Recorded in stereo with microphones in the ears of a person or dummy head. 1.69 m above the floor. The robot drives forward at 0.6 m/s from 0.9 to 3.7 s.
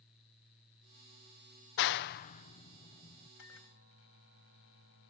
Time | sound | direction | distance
1.8 | a clap | 45° left (ahead or behind) | ?
3.4 | a microwave | 70° left (ahead or behind) | ?